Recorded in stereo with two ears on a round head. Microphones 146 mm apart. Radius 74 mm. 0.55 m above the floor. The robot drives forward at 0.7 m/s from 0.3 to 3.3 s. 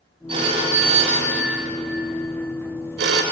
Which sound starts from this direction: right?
A phone ringing, at 0.3 s.